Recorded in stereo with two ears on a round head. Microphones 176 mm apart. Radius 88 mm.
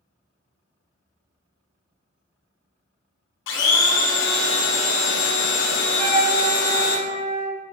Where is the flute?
80° right, 1.7 m.